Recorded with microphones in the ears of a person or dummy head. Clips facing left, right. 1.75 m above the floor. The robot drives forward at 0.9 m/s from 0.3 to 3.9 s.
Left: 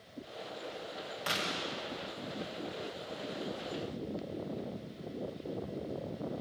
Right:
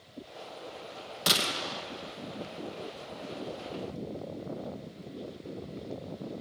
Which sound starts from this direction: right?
A gunshot, at 1.3 s.